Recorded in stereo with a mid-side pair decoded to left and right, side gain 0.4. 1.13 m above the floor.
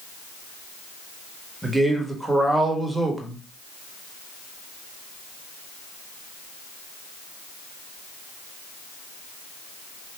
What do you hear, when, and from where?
1.6 s a man speaking: 5° right, 1.4 m